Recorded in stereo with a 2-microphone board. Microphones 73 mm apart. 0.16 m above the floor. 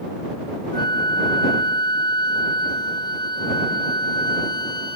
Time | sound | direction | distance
0.7 | a flute | 75° left (ahead or behind) | ?